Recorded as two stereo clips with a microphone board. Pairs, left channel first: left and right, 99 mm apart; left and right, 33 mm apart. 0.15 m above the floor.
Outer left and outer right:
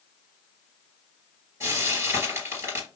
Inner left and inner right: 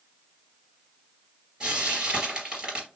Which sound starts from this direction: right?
Frying, at 1.6 s.